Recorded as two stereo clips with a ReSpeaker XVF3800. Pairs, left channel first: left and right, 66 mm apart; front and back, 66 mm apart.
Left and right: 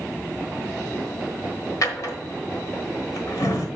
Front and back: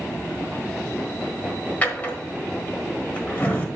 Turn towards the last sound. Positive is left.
turn(degrees=65)